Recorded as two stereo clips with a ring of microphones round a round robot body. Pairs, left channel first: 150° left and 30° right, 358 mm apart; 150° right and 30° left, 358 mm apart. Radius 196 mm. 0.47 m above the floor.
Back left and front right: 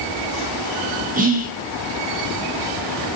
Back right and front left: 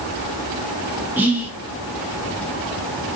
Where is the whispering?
45° right, 1.0 m.